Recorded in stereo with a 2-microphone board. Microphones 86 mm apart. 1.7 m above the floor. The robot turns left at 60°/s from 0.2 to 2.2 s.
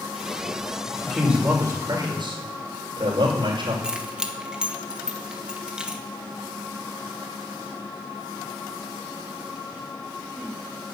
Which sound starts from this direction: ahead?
A man speaking, at 1.0 s.